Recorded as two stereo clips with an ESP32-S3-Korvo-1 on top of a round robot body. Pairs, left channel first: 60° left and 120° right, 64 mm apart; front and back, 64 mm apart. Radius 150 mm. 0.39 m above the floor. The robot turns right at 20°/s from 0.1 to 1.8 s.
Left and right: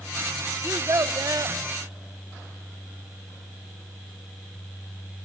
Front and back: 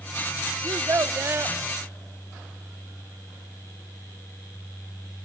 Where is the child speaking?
150° right, 0.8 m; by 1.6 s 130° right, 0.8 m.